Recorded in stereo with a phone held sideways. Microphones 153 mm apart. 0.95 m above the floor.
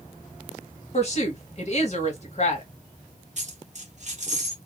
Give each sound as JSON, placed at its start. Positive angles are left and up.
{"t": 0.9, "sound": "a woman speaking", "side_deg": 45, "distance_m": 1.0}
{"t": 3.4, "sound": "a dropped coin", "side_deg": -50, "distance_m": 0.7}